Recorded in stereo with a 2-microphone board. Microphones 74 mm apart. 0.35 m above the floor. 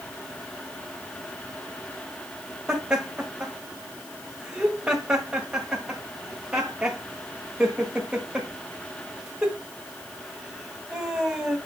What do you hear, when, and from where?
2.7 s laughter: 20° right (ahead or behind), 1.4 m